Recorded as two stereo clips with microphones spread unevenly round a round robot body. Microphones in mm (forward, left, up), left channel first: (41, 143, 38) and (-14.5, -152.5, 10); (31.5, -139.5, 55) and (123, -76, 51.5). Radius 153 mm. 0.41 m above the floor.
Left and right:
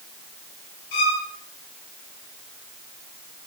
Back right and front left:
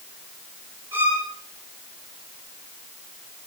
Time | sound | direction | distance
0.9 | a violin | 100° left | 4.5 m